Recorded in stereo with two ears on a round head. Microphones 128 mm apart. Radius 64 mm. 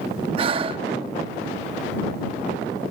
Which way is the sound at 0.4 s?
40° right (ahead or behind).